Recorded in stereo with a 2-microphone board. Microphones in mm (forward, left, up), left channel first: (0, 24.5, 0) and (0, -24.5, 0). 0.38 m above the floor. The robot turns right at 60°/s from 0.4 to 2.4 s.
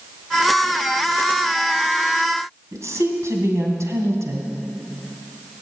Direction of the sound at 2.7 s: 70° right (ahead or behind).